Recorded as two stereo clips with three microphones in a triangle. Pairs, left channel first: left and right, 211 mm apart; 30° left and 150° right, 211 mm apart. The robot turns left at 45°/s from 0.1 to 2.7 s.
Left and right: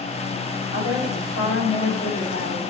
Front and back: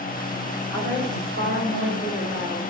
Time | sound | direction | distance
0.7 | a woman speaking | 105° left | 5 m